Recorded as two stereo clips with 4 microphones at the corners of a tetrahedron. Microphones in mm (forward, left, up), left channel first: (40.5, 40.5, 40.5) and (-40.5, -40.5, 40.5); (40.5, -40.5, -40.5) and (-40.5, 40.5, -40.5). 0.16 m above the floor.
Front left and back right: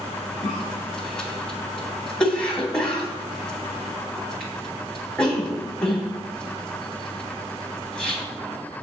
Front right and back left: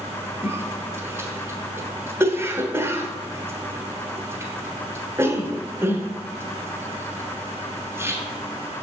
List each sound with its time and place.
0.4 s a cough: 120° left, 1.0 m